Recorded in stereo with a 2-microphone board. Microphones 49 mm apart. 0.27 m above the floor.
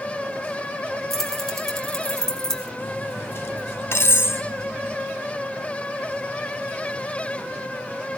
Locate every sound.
1.1 s keys jangling: 5° left (ahead or behind), 3 m; by 2.7 s 10° left (ahead or behind), 2 m
2.8 s cutlery clinking: 55° left (ahead or behind), 1.0 m